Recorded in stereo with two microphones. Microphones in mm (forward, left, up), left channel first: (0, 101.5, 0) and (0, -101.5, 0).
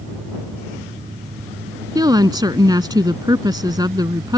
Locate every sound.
1.9 s a woman speaking: 20° right (ahead or behind)